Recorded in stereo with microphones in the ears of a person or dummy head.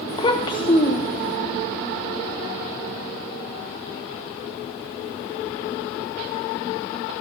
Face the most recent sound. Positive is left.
turn(degrees=35)  # may be behind; listen again after turning